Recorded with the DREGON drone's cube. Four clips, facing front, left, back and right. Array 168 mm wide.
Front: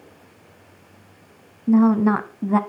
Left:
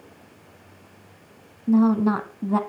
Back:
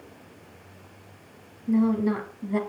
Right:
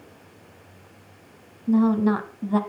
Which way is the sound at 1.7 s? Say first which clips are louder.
Left 1 dB, front 7 dB; 15° left.